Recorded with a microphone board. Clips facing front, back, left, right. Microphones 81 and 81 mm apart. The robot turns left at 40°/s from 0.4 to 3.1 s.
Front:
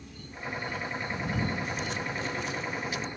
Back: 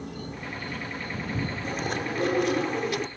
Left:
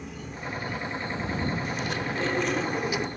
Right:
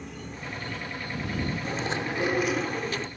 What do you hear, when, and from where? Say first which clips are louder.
0.0 s an insect: back 5 dB, left 2 dB; straight behind; by 3.2 s 70° left
1.6 s chewing: back 4 dB, even; 140° right; by 3.1 s 160° left